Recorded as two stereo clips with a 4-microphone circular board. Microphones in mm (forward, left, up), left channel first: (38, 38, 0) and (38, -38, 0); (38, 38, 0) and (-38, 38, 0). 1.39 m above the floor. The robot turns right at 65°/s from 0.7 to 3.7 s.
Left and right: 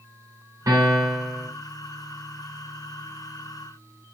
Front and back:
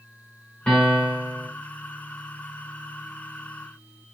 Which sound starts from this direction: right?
A piano, at 0.7 s.